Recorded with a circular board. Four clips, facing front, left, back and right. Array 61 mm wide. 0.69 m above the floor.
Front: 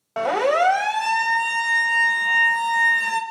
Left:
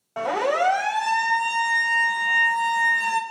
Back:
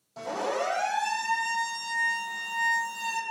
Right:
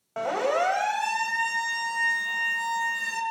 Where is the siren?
Straight ahead, 5.5 m; by 3.2 s 25° left, 4.5 m.